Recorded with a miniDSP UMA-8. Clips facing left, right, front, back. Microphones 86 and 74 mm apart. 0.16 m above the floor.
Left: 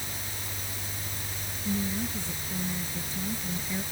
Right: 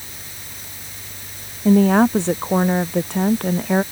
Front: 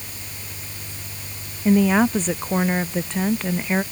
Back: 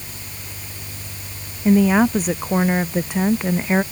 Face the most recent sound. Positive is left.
turn(degrees=-110)